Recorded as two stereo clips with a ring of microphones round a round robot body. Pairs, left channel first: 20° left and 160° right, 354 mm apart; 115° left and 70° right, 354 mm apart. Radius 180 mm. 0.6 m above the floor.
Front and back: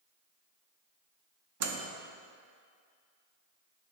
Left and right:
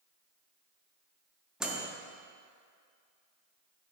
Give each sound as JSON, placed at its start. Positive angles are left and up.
{"t": 1.6, "sound": "a microwave", "azimuth_deg": -155, "distance_m": 0.7}